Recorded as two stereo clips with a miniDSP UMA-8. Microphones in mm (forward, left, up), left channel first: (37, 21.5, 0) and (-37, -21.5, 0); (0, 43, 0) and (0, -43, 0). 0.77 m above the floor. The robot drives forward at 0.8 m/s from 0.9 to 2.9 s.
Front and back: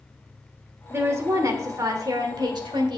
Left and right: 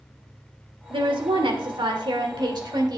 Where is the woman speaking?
90° right, 2.5 m; by 3.0 s 125° right, 3 m.